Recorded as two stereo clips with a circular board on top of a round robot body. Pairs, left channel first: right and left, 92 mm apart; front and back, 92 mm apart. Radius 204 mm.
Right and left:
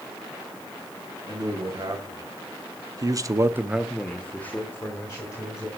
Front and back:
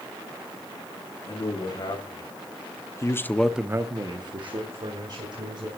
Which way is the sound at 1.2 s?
40° left.